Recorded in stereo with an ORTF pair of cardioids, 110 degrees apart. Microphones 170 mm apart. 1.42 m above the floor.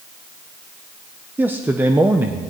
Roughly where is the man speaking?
Ahead.